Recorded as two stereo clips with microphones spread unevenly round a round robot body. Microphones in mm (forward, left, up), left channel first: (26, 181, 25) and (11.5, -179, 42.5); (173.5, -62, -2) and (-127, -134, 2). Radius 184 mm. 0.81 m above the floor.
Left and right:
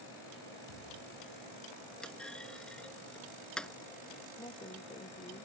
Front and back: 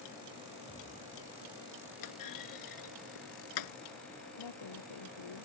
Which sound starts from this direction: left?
A thud, at 0.7 s.